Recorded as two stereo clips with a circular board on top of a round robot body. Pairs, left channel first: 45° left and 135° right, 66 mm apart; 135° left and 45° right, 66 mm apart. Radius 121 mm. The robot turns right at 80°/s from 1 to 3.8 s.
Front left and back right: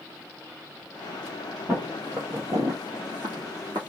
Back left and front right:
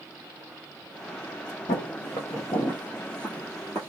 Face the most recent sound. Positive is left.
turn(degrees=-160)